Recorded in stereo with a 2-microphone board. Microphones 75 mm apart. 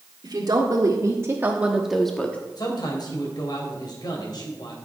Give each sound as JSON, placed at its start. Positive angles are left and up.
{"t": 0.2, "sound": "a woman speaking", "side_deg": -60, "distance_m": 1.8}
{"t": 2.6, "sound": "a man speaking", "side_deg": 65, "distance_m": 3.5}